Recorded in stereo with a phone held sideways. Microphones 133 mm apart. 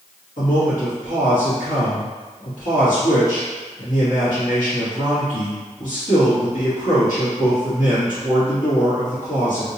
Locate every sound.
0.4 s a man speaking: 85° left, 1.8 m